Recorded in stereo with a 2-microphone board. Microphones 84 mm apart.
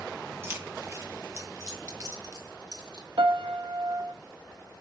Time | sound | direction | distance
0.4 | keys jangling | 30° right (ahead or behind) | 3 m
3.2 | a piano | 80° right | 0.8 m